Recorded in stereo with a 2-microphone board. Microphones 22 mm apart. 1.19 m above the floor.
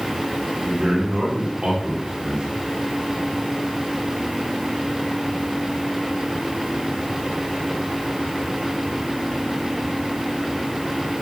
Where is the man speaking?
55° right (ahead or behind), 3.5 m; by 2.6 s 40° right (ahead or behind), 3 m.